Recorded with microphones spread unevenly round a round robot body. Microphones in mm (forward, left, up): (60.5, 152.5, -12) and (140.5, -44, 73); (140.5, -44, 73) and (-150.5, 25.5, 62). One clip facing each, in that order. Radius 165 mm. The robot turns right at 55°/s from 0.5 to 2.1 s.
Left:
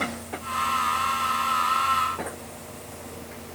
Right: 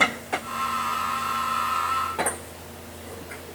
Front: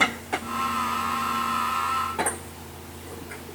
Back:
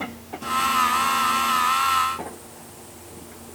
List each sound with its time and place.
Only background noise.